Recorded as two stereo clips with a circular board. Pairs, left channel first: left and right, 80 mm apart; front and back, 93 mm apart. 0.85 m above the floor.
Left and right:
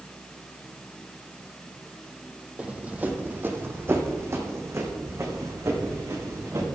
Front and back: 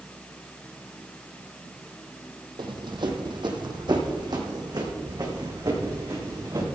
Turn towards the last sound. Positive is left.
turn(degrees=-135)